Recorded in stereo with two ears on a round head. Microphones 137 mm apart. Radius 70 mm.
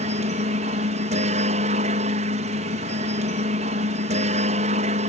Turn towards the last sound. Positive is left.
turn(degrees=-50)  # may be behind; listen again after turning